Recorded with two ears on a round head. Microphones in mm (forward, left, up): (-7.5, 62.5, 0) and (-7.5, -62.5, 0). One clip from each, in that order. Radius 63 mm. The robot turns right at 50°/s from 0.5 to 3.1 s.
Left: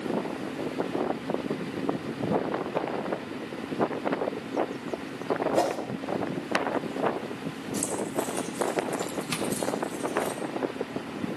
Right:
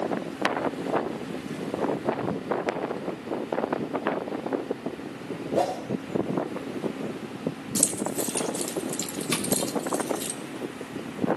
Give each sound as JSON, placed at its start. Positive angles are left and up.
{"t": 5.5, "sound": "a whoosh", "side_deg": 50, "distance_m": 3.0}
{"t": 7.8, "sound": "keys jangling", "side_deg": -40, "distance_m": 1.8}
{"t": 9.3, "sound": "tapping", "side_deg": -20, "distance_m": 1.2}